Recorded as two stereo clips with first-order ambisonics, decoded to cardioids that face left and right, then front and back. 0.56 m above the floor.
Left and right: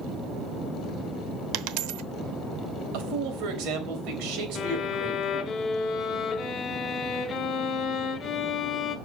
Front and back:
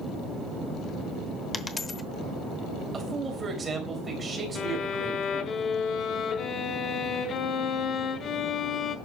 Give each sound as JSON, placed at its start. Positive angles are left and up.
{"t": 1.5, "sound": "a dropped coin", "azimuth_deg": -75, "distance_m": 0.8}
{"t": 2.9, "sound": "a man speaking", "azimuth_deg": -105, "distance_m": 3.5}
{"t": 4.5, "sound": "a violin", "azimuth_deg": 40, "distance_m": 1.0}